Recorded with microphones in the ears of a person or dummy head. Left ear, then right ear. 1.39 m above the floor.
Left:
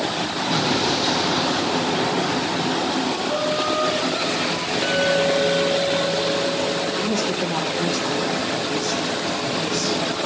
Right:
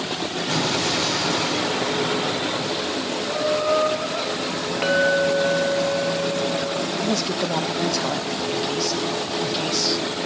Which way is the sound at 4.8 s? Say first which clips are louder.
Right 1 dB; 30° right (ahead or behind).